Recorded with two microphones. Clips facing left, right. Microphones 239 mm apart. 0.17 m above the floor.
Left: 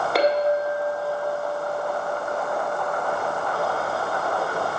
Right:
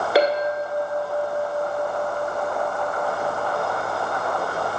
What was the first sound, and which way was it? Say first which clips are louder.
A clink: even; 5° right (ahead or behind).